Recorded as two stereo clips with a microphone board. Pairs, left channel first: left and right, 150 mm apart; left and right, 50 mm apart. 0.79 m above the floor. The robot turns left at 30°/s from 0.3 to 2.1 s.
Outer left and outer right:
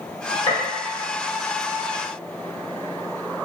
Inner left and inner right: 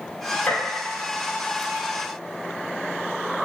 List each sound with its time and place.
0.5 s a gunshot: 40° left (ahead or behind), 1.9 m; by 0.6 s 35° left (ahead or behind), 1.9 m